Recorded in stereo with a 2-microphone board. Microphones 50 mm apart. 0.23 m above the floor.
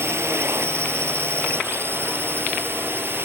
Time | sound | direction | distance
0.0 | a drone | 60° right (ahead or behind) | ?